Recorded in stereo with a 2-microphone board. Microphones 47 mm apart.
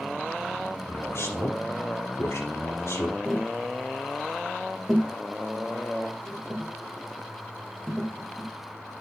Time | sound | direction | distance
0.9 | a man speaking | 65° left (ahead or behind) | 4 m
3.2 | tapping | centre (ahead or behind) | 3 m